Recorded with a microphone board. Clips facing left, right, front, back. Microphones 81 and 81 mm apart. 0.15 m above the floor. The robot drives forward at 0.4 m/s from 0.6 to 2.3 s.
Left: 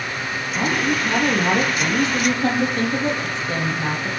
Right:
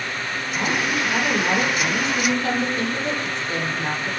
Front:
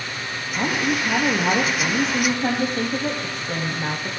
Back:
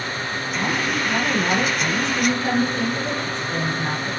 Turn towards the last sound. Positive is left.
turn(degrees=40)